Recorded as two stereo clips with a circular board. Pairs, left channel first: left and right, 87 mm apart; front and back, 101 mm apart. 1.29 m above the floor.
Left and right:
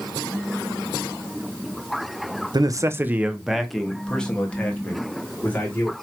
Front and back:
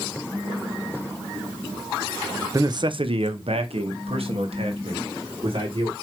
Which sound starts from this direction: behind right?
A man speaking, at 2.5 s.